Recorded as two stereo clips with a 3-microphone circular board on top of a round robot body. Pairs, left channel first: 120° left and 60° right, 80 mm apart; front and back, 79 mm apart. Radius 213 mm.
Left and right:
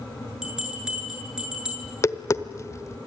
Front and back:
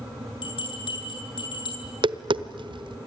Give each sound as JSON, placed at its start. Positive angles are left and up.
{"t": 0.4, "sound": "a bell", "azimuth_deg": 20, "distance_m": 8.5}
{"t": 1.8, "sound": "tapping", "azimuth_deg": 170, "distance_m": 1.0}